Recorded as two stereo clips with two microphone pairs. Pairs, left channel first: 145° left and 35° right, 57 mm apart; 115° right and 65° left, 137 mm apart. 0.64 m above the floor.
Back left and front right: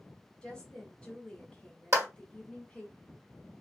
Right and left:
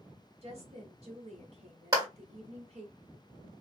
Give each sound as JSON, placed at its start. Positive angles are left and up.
{"t": 0.4, "sound": "a woman speaking", "azimuth_deg": 75, "distance_m": 1.6}
{"t": 1.9, "sound": "a clap", "azimuth_deg": 0, "distance_m": 1.6}